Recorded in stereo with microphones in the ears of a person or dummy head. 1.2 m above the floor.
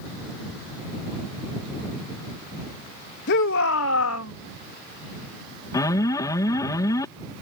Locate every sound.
3.3 s a shout: 55° left (ahead or behind); by 4.3 s 80° left
5.7 s an alarm: 15° left (ahead or behind)